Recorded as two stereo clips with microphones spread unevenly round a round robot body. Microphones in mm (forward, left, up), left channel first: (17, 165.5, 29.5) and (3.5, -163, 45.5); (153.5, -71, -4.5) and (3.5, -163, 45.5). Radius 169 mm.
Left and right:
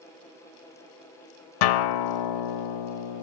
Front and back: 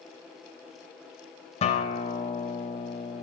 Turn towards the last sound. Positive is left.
turn(degrees=90)